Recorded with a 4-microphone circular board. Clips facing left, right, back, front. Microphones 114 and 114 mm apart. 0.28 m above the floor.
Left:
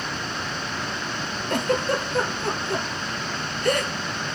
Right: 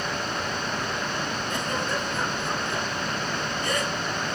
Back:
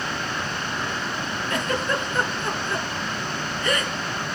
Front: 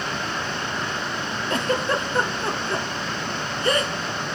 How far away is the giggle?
About 1.5 m.